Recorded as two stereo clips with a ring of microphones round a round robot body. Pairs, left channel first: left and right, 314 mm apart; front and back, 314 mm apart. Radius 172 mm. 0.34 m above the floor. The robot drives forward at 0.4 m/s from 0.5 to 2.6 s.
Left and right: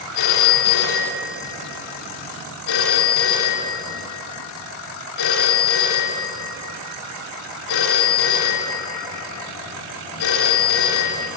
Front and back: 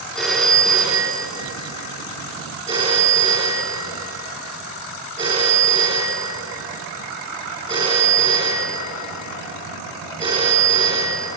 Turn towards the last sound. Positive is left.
turn(degrees=105)